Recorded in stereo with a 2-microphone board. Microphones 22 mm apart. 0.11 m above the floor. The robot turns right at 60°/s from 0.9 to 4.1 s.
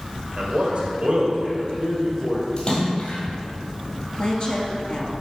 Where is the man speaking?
80° right, 2.5 m; by 2.5 s 10° left, 2.5 m.